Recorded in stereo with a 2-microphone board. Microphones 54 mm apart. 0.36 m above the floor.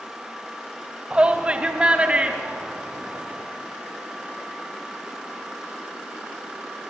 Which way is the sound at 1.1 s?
20° right (ahead or behind).